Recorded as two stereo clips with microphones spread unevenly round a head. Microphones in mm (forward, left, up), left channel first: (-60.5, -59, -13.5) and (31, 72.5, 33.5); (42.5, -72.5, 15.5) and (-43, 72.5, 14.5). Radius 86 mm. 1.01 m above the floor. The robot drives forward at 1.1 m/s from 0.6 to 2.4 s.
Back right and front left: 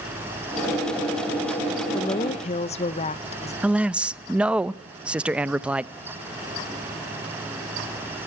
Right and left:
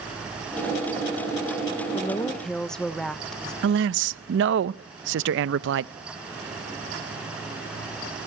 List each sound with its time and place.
1.9 s a woman speaking: 100° right, 0.6 m; by 3.5 s 145° right, 0.9 m
3.6 s a man speaking: 140° left, 0.6 m